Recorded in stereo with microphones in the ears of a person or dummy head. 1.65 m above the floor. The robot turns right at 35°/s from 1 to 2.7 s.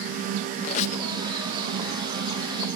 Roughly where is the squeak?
Left.